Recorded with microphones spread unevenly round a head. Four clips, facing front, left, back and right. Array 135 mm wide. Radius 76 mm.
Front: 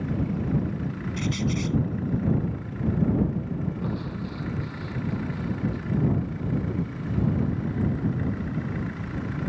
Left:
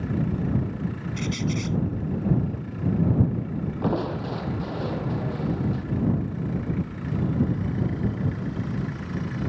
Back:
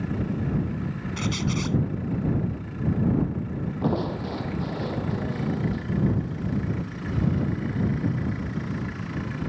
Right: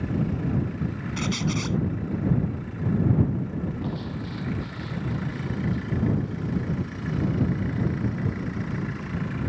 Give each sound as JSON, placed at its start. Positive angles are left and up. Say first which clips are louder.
{"t": 1.2, "sound": "a squeak", "louder": "right 1 dB, front 1 dB", "azimuth_deg": -130}
{"t": 3.8, "sound": "crushing", "louder": "left 6 dB, back 5 dB", "azimuth_deg": 130}